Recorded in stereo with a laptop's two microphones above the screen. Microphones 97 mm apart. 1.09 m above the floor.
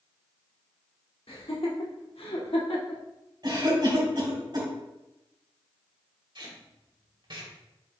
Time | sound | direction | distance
1.3 | laughter | 85° left | 2.5 m
3.4 | a cough | 50° right (ahead or behind) | 3.5 m
6.3 | tape being pulled | 50° right (ahead or behind) | 1.9 m